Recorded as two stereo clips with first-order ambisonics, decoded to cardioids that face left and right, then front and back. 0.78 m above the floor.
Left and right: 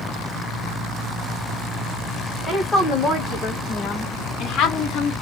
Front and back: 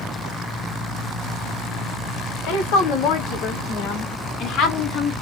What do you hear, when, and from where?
2.5 s a woman speaking: 10° left, 1.9 m; by 5.1 s 55° left, 1.2 m